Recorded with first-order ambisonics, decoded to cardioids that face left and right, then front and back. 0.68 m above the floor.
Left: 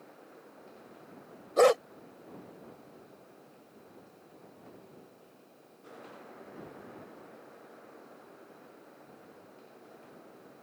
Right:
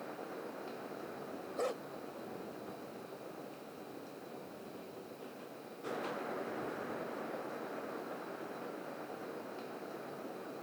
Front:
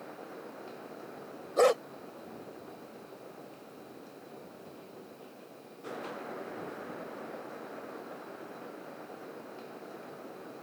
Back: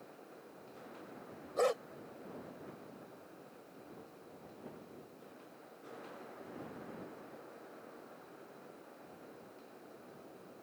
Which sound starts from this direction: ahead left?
A dog barking, at 1.6 s.